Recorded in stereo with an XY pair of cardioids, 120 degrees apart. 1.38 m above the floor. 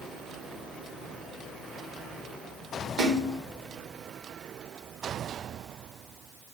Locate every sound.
3.0 s a splash: 70° right, 4 m